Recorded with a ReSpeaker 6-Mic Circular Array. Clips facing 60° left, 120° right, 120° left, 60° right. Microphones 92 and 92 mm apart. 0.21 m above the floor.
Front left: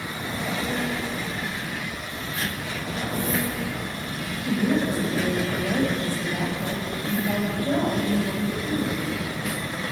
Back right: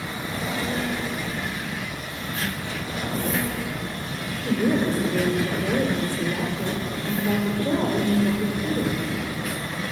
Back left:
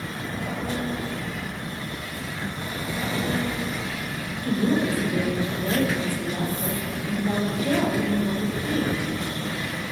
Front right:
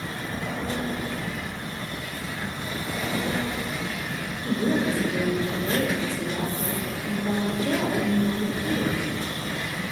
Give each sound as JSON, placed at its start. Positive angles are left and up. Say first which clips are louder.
{"t": 4.4, "sound": "a woman speaking", "louder": "back right 1 dB, back left 1 dB", "azimuth_deg": -120, "distance_m": 5.0}